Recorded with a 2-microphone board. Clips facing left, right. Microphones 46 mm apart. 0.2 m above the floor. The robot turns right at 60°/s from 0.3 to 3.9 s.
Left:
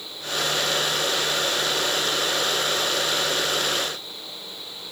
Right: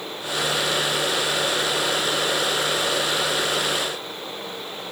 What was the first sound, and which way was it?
Only background noise.